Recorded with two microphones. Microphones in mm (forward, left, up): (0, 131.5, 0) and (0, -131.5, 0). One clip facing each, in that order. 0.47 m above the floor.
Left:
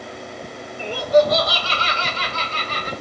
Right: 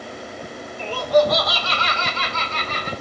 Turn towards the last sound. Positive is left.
turn(degrees=35)  # may be behind; listen again after turning